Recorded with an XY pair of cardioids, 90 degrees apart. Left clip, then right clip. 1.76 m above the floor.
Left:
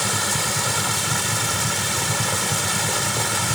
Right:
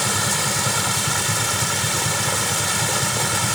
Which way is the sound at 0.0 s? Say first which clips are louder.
Right 1 dB; 10° right.